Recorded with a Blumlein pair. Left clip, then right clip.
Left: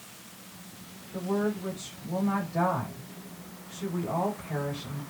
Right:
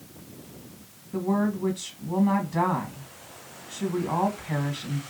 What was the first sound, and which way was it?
A woman speaking, 45° right.